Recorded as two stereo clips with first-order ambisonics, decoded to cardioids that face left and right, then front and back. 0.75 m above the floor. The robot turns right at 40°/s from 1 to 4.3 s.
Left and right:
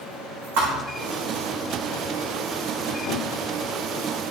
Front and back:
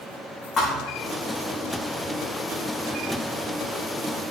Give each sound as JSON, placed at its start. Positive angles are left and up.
{"t": 0.6, "sound": "a thud", "azimuth_deg": -70, "distance_m": 3.5}